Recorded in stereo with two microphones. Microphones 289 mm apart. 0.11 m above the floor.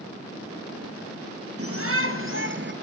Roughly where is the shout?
Right.